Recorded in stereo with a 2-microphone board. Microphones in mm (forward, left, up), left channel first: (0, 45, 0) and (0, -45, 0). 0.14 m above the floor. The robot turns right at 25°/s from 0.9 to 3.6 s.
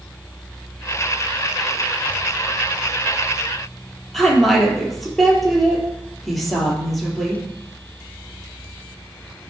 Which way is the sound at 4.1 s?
Centre (ahead or behind).